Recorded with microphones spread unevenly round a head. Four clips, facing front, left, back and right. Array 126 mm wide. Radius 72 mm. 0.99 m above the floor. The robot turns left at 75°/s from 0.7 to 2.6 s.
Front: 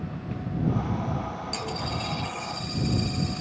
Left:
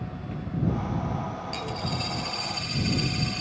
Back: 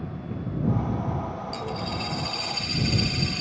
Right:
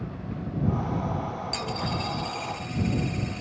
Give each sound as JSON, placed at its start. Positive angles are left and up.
{"t": 1.5, "sound": "a dropped coin", "azimuth_deg": -115}